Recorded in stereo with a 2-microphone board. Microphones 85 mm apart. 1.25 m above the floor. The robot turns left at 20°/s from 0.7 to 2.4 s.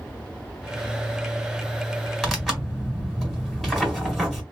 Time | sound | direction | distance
2.2 | tearing paper | centre (ahead or behind) | 1.7 m